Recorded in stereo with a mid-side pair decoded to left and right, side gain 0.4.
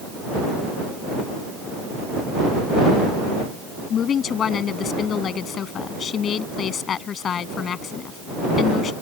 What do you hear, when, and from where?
3.9 s a woman speaking: 60° left